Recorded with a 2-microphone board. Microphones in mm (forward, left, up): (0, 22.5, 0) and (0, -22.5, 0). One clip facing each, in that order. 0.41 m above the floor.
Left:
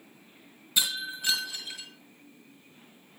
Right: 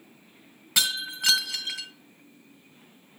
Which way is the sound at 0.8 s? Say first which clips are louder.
Right 3 dB; 70° right (ahead or behind).